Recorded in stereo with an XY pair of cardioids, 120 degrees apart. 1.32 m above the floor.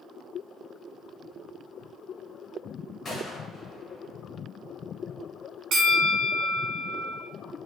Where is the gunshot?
40° left, 1.1 m.